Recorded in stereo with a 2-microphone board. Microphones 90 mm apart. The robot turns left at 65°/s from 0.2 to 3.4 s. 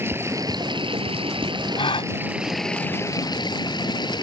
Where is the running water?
25° right; by 4.2 s 125° left.